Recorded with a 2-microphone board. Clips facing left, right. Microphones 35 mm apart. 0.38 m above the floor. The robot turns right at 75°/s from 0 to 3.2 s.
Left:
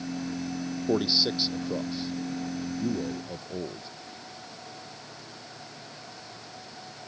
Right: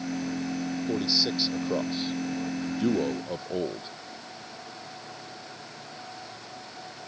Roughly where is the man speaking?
Behind left.